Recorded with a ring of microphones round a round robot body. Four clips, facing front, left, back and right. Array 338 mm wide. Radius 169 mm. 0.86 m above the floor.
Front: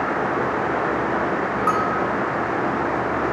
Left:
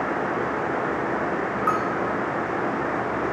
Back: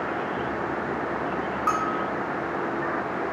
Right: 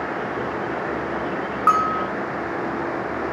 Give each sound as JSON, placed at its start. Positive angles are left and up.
{"t": 1.7, "sound": "a bell", "azimuth_deg": -80, "distance_m": 1.0}